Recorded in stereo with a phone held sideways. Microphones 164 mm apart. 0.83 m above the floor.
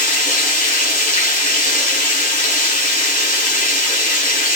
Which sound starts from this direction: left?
Running water, at 0.0 s.